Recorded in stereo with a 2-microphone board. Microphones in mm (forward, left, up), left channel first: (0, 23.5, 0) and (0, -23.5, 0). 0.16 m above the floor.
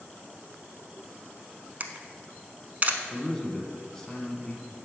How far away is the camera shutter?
About 0.5 m.